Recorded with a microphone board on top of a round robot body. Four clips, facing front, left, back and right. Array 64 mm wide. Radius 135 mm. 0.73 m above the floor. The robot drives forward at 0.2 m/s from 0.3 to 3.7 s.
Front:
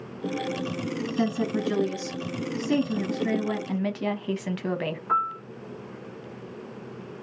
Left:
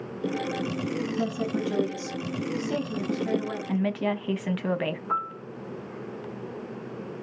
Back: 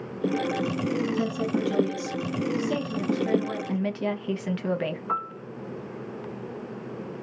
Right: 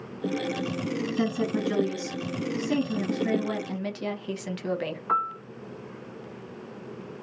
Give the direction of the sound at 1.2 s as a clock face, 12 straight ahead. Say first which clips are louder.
Right 3 dB, even; 1 o'clock.